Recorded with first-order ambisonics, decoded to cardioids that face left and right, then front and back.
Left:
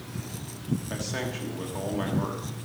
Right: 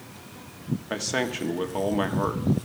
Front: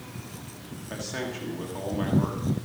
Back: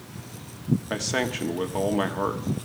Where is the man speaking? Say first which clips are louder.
Right 8 dB, back 5 dB; 140° right, 1.3 m.